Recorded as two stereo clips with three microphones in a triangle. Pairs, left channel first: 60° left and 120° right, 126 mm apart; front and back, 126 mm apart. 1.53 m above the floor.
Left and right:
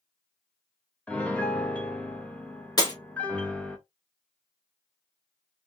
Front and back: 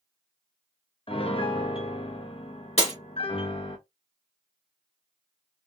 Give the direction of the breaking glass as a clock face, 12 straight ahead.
12 o'clock.